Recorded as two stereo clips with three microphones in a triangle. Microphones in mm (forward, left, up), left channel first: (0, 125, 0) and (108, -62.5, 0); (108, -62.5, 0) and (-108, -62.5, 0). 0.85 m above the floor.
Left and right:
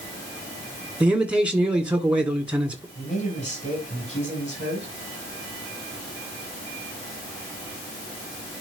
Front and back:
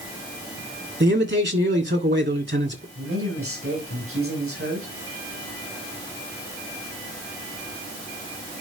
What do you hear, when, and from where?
1.0 s a man speaking: 145° right, 1.8 m
3.0 s a man speaking: straight behind, 6.5 m